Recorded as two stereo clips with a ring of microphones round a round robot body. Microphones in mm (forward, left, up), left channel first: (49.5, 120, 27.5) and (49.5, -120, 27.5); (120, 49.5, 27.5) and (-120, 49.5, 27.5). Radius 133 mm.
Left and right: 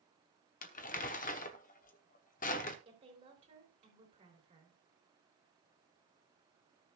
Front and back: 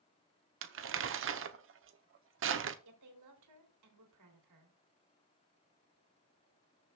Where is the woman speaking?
160° right, 3 m.